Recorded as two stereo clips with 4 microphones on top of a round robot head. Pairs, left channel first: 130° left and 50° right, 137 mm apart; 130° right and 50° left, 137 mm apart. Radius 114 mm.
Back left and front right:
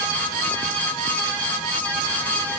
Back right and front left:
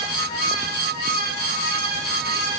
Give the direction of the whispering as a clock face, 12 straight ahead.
No whispering in this recording.